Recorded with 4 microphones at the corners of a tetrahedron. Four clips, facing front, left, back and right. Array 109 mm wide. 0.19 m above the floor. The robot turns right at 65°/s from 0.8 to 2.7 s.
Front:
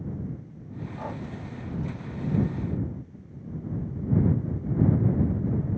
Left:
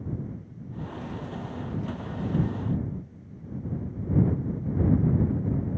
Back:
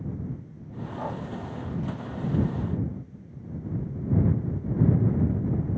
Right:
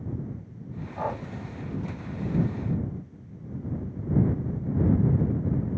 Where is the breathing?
110° right; by 1.2 s 90° right.